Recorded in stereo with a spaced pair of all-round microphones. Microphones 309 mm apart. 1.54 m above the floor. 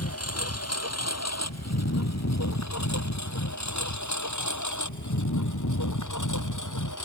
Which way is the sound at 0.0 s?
50° left (ahead or behind).